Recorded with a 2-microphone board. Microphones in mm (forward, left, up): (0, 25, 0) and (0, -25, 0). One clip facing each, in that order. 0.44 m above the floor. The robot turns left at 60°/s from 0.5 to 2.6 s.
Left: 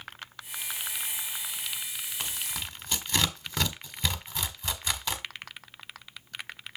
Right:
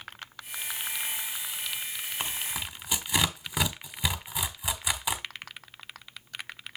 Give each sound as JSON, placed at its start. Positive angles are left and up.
{"t": 2.2, "sound": "tearing paper", "side_deg": -20, "distance_m": 1.4}